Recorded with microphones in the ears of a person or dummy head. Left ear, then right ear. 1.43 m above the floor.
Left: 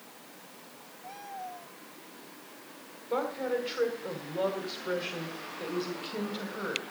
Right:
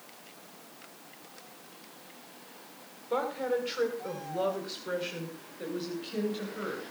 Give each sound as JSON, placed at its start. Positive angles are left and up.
{"t": 3.1, "sound": "a woman speaking", "side_deg": -5, "distance_m": 6.0}